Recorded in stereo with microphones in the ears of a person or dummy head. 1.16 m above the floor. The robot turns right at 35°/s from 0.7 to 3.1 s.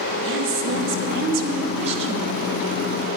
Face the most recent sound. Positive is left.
turn(degrees=5)